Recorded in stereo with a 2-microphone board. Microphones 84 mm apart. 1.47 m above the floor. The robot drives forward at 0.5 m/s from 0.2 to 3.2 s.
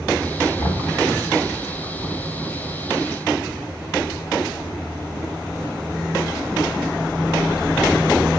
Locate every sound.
0.6 s knocking: 55° left (ahead or behind), 6.5 m